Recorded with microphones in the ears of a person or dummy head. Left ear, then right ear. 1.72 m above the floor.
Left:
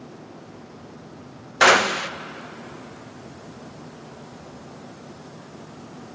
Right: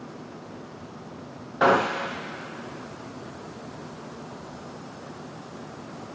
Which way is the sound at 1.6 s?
70° left (ahead or behind).